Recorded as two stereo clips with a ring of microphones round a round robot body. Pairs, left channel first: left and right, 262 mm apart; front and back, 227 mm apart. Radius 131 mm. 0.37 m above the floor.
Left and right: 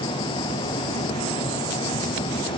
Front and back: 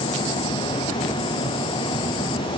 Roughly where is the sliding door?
No sliding door in this recording.